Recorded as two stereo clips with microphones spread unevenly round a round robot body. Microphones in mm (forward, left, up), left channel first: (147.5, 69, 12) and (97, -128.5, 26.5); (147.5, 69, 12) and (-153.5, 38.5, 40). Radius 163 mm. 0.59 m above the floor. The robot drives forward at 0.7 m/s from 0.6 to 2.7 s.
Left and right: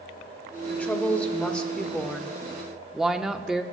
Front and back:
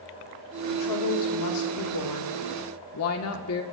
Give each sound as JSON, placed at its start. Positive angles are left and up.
{"t": 0.7, "sound": "a woman speaking", "azimuth_deg": -5, "distance_m": 2.5}